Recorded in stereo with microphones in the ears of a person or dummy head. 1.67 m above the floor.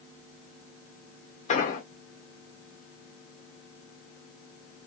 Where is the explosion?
40° left (ahead or behind), 0.5 m.